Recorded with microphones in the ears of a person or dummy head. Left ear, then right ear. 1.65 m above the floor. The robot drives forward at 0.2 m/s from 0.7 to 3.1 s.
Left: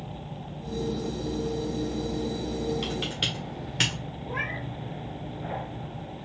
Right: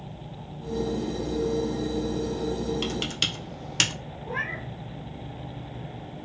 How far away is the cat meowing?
About 1.2 m.